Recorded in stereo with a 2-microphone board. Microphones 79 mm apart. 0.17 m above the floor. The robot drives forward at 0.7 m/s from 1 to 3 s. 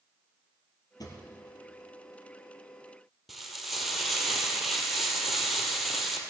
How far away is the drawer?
About 2.5 m.